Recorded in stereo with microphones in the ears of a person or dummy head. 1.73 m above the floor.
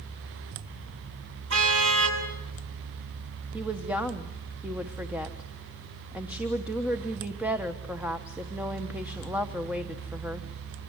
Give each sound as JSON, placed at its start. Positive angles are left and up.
{"t": 1.5, "sound": "a car horn", "side_deg": -70, "distance_m": 7.0}
{"t": 3.5, "sound": "a woman speaking", "side_deg": -5, "distance_m": 1.2}